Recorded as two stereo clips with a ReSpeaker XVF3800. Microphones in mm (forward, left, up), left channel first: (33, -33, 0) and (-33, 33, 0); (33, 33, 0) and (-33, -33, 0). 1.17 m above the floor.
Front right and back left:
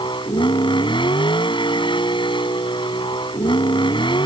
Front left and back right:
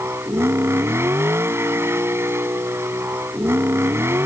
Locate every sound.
0.0 s a vehicle: 75° right